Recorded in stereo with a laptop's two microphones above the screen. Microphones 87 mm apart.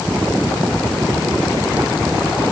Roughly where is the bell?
I don't hear a bell.